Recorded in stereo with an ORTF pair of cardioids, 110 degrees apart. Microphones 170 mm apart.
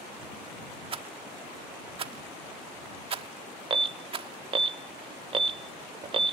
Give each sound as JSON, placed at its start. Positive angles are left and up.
{"t": 0.9, "sound": "a rattle", "azimuth_deg": -35}
{"t": 3.7, "sound": "an alarm", "azimuth_deg": -30}